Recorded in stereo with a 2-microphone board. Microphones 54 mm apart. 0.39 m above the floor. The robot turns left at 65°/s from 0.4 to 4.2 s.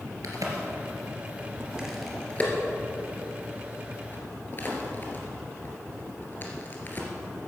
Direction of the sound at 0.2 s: 75° right (ahead or behind).